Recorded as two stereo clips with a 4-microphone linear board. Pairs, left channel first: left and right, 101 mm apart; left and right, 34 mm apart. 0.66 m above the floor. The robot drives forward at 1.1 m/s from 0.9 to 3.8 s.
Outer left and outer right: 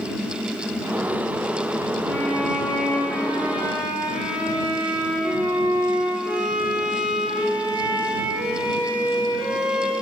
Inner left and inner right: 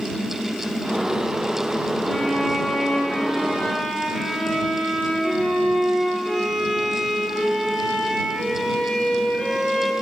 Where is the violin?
10° right (ahead or behind), 9 m; by 9.9 s 15° right (ahead or behind), 7 m.